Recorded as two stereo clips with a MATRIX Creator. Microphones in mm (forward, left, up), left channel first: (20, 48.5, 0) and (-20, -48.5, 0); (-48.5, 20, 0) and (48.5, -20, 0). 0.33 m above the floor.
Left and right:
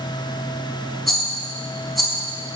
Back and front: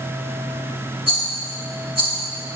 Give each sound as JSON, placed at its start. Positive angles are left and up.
{"t": 1.1, "sound": "a rattle", "azimuth_deg": -20, "distance_m": 3.5}